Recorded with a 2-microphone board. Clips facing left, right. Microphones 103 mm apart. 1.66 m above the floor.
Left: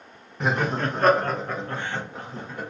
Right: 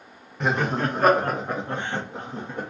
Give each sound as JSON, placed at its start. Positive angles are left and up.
{"t": 0.4, "sound": "laughter", "side_deg": 5, "distance_m": 0.6}